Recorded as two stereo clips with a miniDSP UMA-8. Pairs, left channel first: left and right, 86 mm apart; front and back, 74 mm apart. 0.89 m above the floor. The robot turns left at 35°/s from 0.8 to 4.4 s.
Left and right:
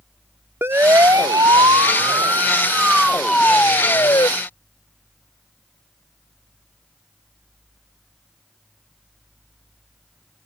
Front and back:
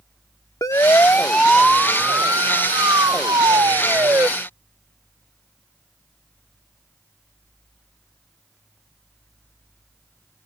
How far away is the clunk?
No clunk in this recording.